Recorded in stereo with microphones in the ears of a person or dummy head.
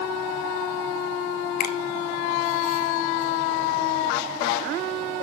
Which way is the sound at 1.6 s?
50° left (ahead or behind).